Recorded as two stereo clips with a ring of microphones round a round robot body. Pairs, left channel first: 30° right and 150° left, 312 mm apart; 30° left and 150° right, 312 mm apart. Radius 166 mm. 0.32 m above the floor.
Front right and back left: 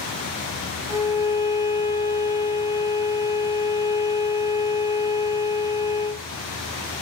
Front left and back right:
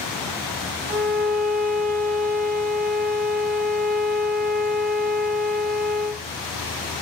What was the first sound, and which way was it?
A violin, 140° right.